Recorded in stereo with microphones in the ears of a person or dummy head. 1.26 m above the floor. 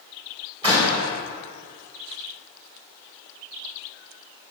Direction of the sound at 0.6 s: 30° right (ahead or behind).